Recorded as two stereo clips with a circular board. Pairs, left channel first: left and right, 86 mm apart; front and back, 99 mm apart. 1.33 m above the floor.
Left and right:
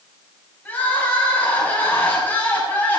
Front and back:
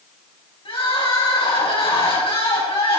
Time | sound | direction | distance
0.7 | crying | 20° left | 6 m